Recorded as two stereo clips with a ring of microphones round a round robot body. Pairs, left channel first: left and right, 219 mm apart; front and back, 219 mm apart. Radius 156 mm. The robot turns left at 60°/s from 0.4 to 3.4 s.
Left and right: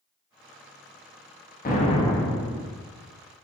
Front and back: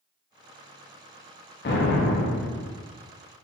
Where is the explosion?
40° left, 1.0 m; by 2.7 s 20° right, 1.0 m.